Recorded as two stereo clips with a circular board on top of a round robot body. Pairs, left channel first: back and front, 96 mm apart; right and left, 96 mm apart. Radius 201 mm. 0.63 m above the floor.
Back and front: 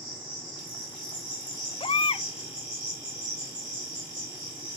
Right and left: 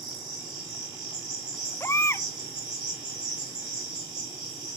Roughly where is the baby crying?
Behind right.